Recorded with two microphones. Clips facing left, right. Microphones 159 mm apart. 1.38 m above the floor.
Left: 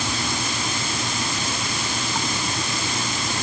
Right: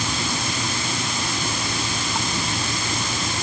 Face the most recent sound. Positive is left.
No sound to turn to.